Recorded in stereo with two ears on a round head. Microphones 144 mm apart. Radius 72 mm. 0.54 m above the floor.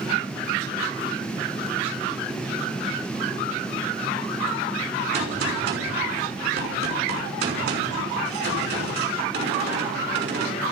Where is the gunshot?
75° right (ahead or behind), 6 m.